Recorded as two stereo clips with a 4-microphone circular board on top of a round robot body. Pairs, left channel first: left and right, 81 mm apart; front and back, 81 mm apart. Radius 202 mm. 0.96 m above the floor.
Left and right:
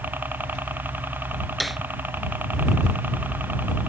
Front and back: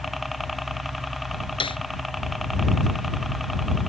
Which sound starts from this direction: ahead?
A snare drum, at 1.6 s.